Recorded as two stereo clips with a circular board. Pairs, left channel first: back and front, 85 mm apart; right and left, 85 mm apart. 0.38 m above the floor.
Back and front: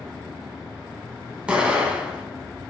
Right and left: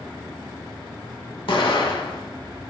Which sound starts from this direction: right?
An explosion, at 1.5 s.